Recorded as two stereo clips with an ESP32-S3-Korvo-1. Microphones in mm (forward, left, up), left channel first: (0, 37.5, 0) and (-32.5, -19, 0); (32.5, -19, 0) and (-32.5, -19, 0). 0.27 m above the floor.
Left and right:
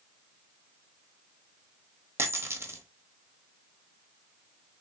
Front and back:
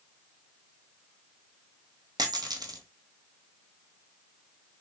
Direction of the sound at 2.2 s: 175° right.